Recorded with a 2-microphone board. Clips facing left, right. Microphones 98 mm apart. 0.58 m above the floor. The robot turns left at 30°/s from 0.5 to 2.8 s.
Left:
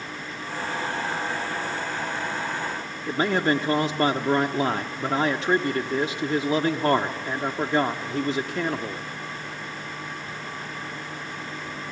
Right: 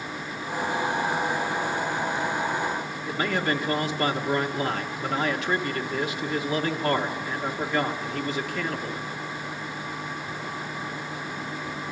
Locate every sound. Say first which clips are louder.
3.1 s a man speaking: left 4 dB; 30° left (ahead or behind), 1.1 m